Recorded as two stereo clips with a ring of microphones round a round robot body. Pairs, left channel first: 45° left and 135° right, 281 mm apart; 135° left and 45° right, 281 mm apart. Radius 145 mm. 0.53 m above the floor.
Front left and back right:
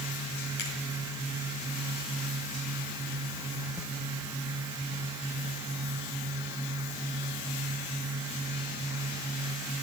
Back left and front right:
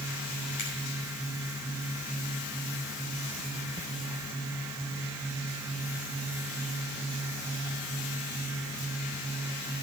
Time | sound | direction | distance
0.6 | a finger snap | 80° left | 5.5 m